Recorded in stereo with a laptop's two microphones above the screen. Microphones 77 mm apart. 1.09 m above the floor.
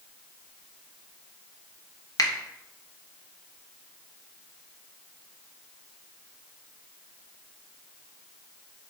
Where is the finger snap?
55° left (ahead or behind), 1.0 m.